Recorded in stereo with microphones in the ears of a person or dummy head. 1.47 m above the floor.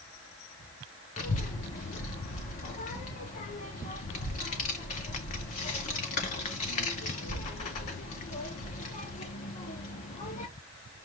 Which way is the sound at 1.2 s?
35° left (ahead or behind).